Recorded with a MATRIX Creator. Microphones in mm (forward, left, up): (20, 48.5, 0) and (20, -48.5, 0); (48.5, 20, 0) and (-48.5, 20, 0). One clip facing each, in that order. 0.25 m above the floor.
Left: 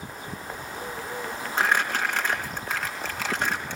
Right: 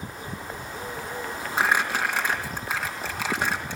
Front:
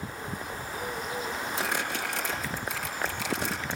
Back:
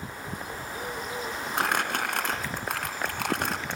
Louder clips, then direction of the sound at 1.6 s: Right 1 dB, back 7 dB; 170° right.